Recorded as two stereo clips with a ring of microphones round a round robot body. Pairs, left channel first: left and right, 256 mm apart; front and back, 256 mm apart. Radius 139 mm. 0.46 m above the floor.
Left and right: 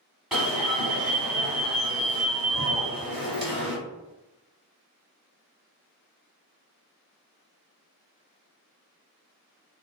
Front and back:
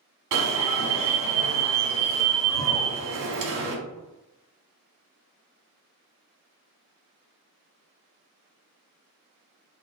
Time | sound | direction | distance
0.3 | an alarm | straight behind | 0.7 m